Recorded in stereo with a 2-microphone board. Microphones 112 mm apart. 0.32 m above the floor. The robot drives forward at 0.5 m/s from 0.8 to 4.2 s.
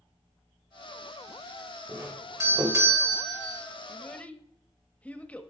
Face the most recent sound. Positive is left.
turn(degrees=15)  # may be behind; listen again after turning